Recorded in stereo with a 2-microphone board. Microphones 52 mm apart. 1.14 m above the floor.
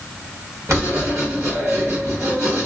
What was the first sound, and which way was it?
Writing, 65° right (ahead or behind).